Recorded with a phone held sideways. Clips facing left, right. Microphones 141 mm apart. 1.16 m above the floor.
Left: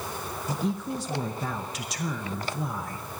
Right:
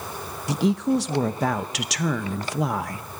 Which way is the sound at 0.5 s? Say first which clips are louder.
Right 9 dB; 80° right.